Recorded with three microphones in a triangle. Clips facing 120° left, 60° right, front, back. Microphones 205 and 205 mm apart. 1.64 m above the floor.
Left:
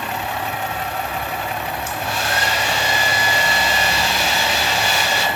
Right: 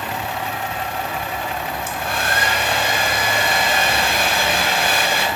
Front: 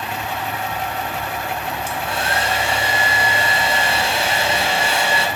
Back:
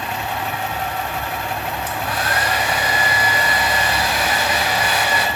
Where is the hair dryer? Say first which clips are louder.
Even, front 1 dB; 55° right, 0.9 m.